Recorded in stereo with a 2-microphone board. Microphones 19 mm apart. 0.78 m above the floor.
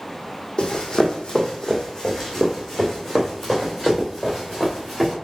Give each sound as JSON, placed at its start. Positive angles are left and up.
{"t": 0.6, "sound": "running footsteps", "side_deg": 50, "distance_m": 1.3}